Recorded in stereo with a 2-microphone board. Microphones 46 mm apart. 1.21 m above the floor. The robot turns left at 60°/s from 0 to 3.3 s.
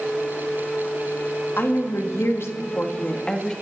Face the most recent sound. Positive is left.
turn(degrees=20)